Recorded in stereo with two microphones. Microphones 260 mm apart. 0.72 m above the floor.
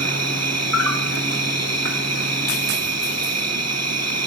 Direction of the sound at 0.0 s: 75° right (ahead or behind).